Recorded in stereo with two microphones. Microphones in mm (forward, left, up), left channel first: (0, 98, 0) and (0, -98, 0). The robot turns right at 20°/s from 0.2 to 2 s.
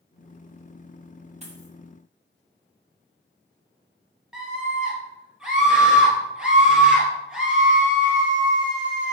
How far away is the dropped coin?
About 3 m.